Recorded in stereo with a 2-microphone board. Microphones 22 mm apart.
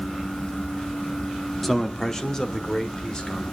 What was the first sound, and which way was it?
A man speaking, 5° left (ahead or behind).